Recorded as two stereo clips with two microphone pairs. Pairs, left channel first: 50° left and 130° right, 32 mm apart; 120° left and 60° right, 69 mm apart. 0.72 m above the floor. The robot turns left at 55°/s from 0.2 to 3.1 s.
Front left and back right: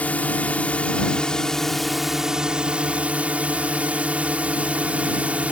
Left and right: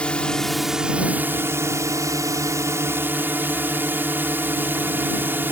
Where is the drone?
50° left; by 5.5 s 110° right.